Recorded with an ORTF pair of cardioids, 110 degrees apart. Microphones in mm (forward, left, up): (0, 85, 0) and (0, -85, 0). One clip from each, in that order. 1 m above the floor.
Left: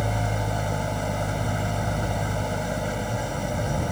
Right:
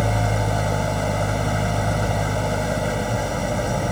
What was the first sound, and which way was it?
An engine running, 30° right.